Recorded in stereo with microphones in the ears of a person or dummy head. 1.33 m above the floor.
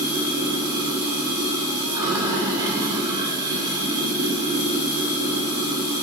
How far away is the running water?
About 1.5 m.